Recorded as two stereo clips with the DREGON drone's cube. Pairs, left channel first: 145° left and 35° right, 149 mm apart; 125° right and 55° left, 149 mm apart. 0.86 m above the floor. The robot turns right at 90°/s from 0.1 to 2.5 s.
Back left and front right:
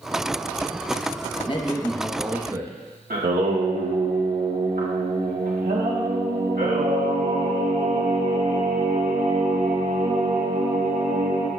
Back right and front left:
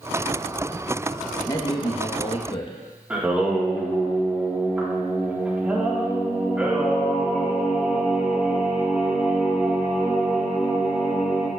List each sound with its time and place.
1.5 s a man speaking: 175° left, 0.8 m; by 2.7 s 90° right, 0.8 m
3.1 s singing: 25° right, 1.5 m